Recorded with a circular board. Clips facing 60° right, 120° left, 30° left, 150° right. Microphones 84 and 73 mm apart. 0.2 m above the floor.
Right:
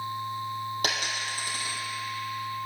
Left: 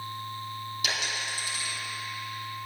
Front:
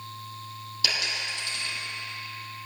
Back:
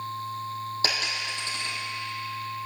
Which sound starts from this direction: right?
A dropped coin, at 0.8 s.